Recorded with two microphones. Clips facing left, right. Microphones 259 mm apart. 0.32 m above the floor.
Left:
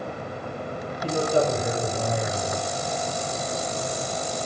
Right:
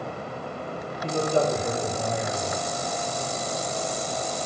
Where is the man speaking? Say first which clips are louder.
Left 1 dB; 15° left (ahead or behind), 1.5 m.